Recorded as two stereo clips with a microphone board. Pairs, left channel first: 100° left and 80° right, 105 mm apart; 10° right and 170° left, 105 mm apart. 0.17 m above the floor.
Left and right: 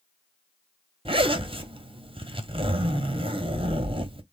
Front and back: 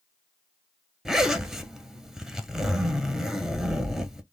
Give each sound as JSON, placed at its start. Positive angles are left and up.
{"t": 1.1, "sound": "a zipper", "azimuth_deg": -105, "distance_m": 0.6}